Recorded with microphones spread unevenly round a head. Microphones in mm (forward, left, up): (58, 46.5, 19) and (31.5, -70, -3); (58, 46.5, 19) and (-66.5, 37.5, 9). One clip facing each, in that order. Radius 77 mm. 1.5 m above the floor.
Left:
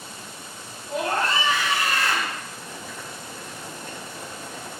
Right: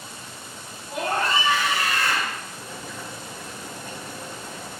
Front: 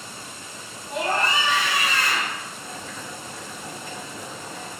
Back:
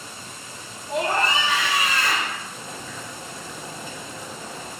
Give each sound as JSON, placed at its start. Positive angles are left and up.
{"t": 0.9, "sound": "a scream", "azimuth_deg": -175, "distance_m": 4.5}
{"t": 2.5, "sound": "boiling", "azimuth_deg": -160, "distance_m": 5.0}